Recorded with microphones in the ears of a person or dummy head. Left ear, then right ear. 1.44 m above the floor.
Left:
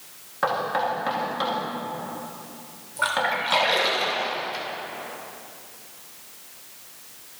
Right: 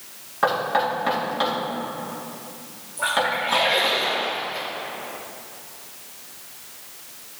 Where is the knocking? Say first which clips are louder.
Right 3 dB; centre (ahead or behind), 2.5 m.